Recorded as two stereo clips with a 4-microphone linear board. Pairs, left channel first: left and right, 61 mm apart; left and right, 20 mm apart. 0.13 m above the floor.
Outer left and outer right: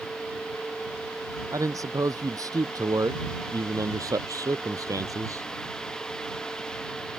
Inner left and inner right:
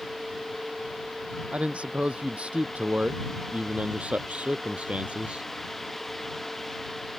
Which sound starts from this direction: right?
A man speaking, at 1.5 s.